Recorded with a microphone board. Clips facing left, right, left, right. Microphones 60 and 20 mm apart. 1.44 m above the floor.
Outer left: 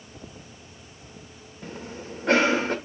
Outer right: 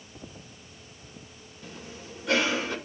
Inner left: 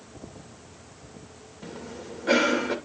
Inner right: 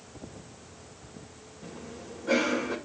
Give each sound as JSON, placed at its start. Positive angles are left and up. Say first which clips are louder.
{"t": 1.6, "sound": "a cough", "louder": "outer left 6 dB, inner left 4 dB", "side_deg": 50, "distance_m": 2.5}